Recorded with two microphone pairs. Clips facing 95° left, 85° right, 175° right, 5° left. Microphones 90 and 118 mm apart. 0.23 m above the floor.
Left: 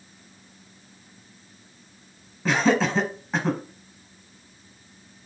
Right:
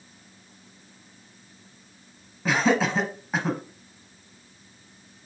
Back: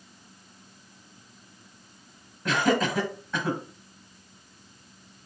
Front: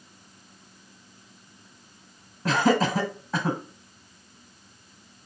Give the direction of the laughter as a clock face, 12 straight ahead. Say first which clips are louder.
Left 1 dB, front 2 dB; 12 o'clock.